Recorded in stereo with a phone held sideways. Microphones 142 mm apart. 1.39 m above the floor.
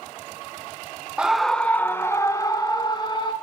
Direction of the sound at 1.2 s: 5° right (ahead or behind).